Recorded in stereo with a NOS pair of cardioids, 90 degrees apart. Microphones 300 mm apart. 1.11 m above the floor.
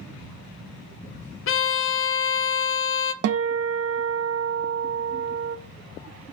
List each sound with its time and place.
1.5 s a violin: 45° left, 0.6 m
3.2 s a guitar: 60° right, 0.6 m